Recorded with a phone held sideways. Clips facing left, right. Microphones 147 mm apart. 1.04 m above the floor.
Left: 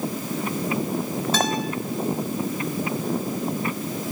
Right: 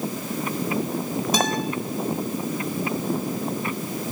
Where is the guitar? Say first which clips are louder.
Even; 15° right (ahead or behind), 3.5 m.